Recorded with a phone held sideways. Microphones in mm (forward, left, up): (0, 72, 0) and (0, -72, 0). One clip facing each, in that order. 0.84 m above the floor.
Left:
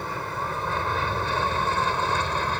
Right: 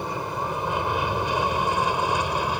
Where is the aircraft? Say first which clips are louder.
Right 2 dB; 15° right (ahead or behind); by 2.6 s 10° right (ahead or behind).